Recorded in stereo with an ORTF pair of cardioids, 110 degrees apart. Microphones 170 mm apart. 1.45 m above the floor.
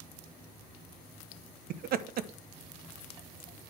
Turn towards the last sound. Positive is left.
turn(degrees=-60)